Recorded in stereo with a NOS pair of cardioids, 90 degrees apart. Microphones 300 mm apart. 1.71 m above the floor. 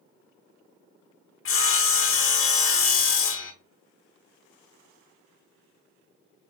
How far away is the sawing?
About 0.9 m.